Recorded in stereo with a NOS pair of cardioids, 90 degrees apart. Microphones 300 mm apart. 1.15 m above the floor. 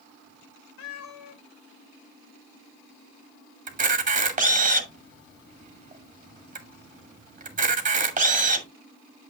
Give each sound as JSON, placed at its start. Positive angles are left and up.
{"t": 0.8, "sound": "a cat meowing", "azimuth_deg": 65, "distance_m": 3.0}
{"t": 3.7, "sound": "a camera shutter", "azimuth_deg": -25, "distance_m": 2.5}